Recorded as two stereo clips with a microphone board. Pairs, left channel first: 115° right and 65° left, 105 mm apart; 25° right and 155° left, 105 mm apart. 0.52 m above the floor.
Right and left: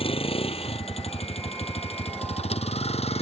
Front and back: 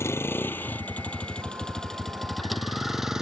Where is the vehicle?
90° right; by 3.2 s 120° right.